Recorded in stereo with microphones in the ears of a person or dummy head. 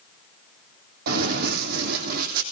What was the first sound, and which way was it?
Running footsteps, 60° right (ahead or behind).